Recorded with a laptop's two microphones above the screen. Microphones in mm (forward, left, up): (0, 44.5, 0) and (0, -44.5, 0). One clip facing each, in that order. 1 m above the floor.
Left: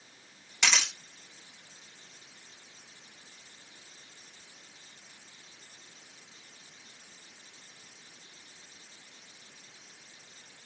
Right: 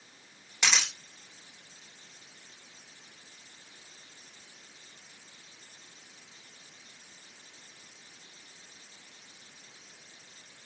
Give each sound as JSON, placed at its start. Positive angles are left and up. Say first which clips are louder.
{"t": 0.6, "sound": "a camera shutter", "louder": "even", "side_deg": -10, "distance_m": 3.5}